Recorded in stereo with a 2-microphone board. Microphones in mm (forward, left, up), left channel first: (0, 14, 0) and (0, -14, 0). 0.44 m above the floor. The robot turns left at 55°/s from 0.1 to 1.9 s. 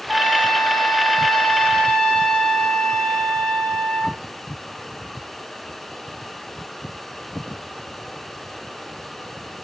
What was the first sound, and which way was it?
A trumpet, 150° right.